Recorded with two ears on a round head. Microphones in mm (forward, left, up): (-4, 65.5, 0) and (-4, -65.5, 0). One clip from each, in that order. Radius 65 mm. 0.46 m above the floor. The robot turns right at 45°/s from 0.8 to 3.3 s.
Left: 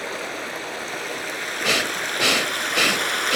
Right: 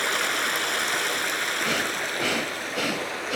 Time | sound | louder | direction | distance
0.0 | running water | right 5 dB | 45° right | 0.8 m
1.6 | breathing | left 4 dB | 60° left | 1.1 m